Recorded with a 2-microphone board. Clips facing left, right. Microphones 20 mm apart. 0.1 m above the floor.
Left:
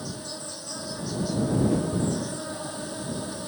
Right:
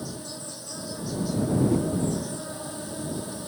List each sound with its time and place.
0.0 s an insect: 10° left (ahead or behind)
1.7 s a whoosh: 10° left (ahead or behind)